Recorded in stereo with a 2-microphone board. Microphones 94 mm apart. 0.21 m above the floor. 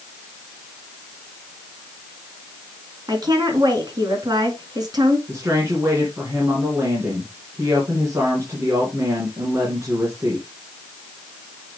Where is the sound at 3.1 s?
45° right (ahead or behind), 2 m.